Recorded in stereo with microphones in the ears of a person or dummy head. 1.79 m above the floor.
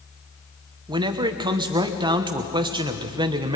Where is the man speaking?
20° right (ahead or behind), 1.3 m.